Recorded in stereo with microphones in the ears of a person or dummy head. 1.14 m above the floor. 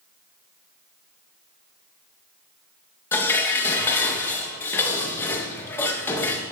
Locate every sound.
3.1 s dishes clattering: 10° left (ahead or behind), 1.1 m